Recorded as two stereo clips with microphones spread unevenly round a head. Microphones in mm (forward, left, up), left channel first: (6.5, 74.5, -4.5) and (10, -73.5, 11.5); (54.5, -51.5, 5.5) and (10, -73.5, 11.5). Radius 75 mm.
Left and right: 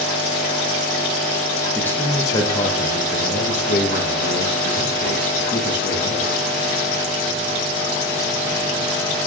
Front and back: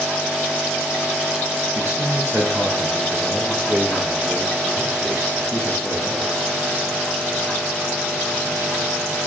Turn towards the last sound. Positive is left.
turn(degrees=90)